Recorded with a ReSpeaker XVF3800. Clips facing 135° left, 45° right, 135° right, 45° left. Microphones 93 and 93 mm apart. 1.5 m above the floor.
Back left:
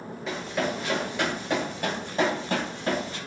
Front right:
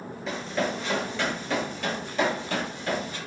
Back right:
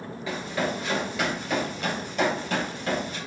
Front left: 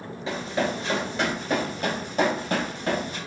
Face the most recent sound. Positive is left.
turn(degrees=85)